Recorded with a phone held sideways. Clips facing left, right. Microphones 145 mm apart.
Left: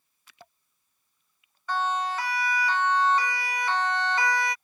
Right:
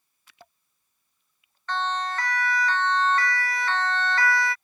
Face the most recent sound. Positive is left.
turn(degrees=20)  # may be behind; listen again after turning